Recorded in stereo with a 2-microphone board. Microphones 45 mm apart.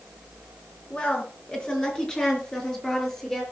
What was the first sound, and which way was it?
A woman speaking, 25° left (ahead or behind).